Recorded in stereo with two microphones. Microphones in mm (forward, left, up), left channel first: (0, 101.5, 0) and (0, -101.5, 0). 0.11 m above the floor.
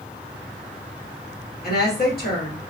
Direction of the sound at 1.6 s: 50° left (ahead or behind).